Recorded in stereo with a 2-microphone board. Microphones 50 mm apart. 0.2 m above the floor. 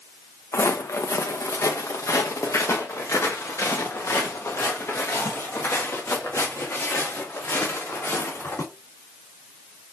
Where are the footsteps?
70° left (ahead or behind), 1.1 m; by 8.6 s 60° left (ahead or behind), 5 m.